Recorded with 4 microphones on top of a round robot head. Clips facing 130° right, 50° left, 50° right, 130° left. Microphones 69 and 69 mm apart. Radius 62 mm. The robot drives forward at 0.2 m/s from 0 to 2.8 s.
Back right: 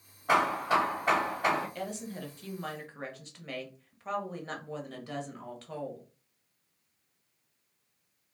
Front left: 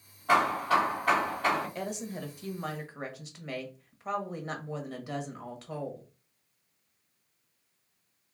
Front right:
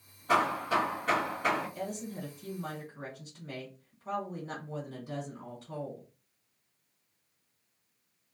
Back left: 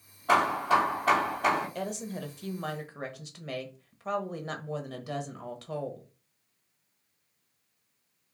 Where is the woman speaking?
120° left, 1.0 m; by 6.1 s 130° left, 1.1 m.